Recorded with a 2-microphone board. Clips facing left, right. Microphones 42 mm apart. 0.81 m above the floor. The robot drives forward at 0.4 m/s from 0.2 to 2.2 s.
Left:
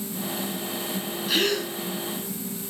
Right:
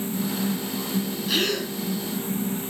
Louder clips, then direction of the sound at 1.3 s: Left 2 dB; centre (ahead or behind).